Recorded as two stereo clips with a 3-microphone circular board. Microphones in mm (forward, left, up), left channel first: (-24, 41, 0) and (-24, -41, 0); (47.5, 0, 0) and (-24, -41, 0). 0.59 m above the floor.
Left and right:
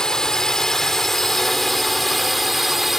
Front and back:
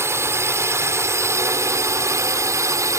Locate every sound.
0.0 s a drone: 170° left; by 3.0 s 175° right